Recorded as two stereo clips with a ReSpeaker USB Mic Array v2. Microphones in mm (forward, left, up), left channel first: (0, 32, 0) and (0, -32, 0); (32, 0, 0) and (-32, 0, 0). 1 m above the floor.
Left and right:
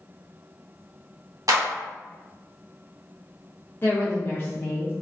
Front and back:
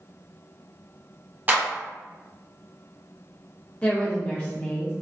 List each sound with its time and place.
1.5 s a clap: 115° right, 0.9 m
3.8 s a woman speaking: 60° left, 0.5 m